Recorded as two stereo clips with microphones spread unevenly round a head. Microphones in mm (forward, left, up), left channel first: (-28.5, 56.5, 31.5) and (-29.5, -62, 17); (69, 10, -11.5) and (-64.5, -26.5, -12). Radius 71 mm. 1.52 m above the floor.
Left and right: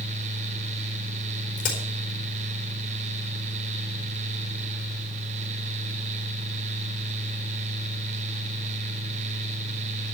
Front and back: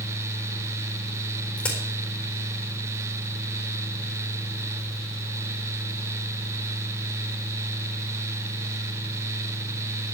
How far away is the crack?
About 4 m.